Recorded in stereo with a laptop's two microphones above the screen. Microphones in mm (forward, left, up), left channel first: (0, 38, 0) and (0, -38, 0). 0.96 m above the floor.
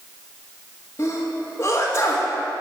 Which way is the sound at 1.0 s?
30° left (ahead or behind).